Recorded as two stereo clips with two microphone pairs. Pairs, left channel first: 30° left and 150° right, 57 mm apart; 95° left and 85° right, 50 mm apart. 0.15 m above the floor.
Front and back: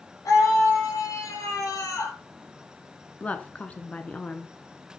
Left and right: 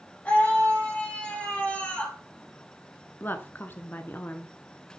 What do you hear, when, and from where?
0.2 s a scream: 35° left, 6.5 m
3.2 s a woman speaking: 85° left, 1.5 m